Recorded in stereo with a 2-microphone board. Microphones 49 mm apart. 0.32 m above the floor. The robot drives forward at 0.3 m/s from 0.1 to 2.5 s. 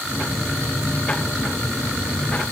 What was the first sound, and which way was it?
Only background noise.